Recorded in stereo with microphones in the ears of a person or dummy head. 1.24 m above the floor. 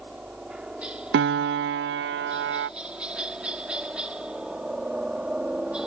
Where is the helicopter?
5° right (ahead or behind).